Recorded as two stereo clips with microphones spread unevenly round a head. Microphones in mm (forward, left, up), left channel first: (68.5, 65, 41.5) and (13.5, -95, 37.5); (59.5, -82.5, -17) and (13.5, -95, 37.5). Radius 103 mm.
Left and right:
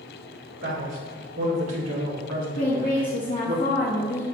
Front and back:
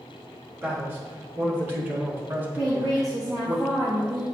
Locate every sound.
0.6 s a man speaking: 130° right, 3 m; by 3.6 s 155° right, 0.9 m
2.6 s a woman speaking: 125° left, 0.9 m